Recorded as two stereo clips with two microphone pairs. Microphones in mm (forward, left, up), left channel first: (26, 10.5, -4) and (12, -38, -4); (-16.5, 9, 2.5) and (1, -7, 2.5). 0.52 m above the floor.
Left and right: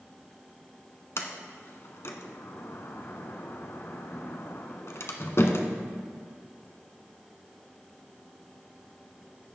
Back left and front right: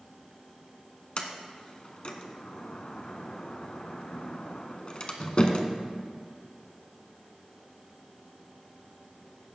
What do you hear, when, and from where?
1.2 s a sliding door: 95° left, 1.0 m